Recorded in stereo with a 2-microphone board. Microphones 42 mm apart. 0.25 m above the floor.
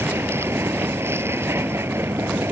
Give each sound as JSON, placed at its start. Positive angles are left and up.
{"t": 0.0, "sound": "a vehicle", "side_deg": -75}